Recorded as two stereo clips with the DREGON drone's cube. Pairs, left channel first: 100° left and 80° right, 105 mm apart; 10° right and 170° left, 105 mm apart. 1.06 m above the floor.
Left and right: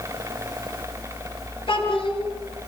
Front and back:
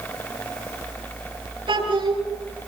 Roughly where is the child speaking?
Behind left.